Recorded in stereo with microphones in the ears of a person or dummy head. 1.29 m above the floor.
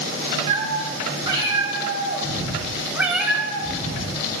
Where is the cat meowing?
30° right (ahead or behind), 4.5 m; by 4.2 s 40° left (ahead or behind), 1.2 m.